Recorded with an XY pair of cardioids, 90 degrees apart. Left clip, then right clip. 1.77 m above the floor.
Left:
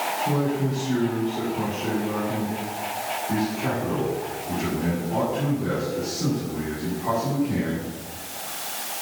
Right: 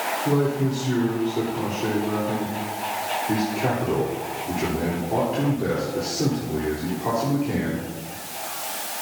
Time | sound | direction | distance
0.2 | a man speaking | 65° right | 4.5 m